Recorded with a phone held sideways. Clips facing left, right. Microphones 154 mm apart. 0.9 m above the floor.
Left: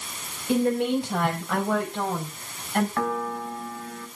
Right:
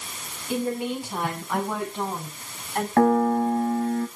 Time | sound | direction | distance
0.5 | a woman speaking | 70° left (ahead or behind) | 6 m
3.0 | a piano | 45° right (ahead or behind) | 1.3 m